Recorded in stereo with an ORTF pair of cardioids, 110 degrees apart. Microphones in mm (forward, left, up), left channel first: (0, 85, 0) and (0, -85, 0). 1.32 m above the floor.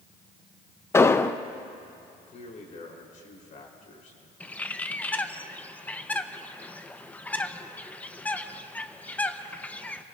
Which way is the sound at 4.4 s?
10° left.